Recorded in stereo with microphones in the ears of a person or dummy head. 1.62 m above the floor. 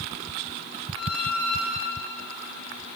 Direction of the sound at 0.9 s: 45° left (ahead or behind).